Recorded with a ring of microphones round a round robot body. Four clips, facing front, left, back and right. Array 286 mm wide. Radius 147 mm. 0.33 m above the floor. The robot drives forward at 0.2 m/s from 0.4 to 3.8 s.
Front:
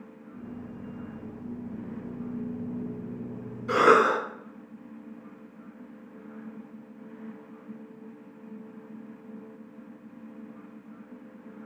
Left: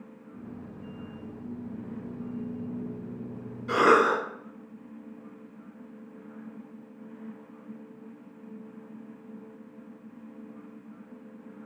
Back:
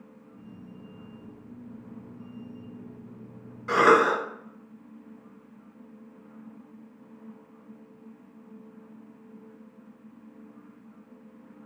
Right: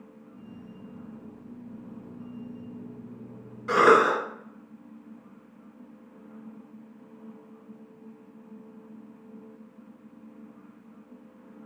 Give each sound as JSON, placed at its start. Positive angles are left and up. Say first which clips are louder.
{"t": 3.7, "sound": "a cough", "louder": "right 2 dB, even", "azimuth_deg": -135, "distance_m": 1.4}